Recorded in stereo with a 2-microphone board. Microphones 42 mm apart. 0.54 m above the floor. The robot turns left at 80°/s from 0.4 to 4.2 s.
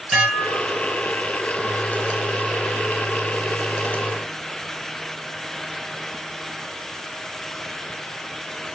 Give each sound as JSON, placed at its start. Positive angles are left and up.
{"t": 0.1, "sound": "dishes clattering", "azimuth_deg": -10, "distance_m": 1.7}